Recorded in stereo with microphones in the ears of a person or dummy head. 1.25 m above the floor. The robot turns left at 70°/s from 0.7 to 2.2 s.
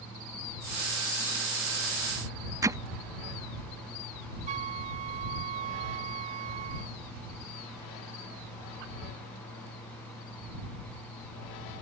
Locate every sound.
2.6 s hammering: 20° right (ahead or behind)
4.5 s a flute: 35° right (ahead or behind)